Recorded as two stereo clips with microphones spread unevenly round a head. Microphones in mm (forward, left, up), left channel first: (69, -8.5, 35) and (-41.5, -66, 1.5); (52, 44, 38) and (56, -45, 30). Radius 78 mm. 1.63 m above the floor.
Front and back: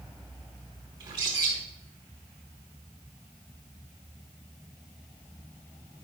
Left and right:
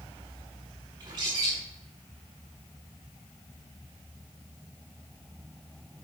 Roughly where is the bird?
Right.